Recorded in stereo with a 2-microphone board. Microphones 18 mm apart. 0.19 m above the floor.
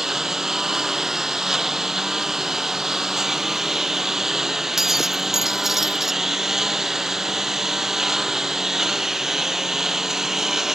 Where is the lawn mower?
20° right (ahead or behind).